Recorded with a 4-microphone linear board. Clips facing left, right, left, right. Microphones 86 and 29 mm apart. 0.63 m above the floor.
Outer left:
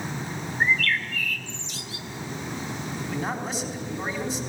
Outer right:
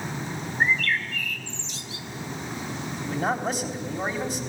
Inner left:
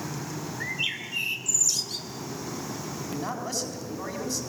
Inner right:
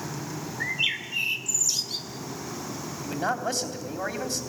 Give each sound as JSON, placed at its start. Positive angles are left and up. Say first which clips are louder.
{"t": 0.6, "sound": "a bird", "louder": "even, inner right 4 dB", "side_deg": -25, "distance_m": 1.7}
{"t": 3.0, "sound": "a man speaking", "louder": "outer right 5 dB, inner right 6 dB", "side_deg": -60, "distance_m": 3.5}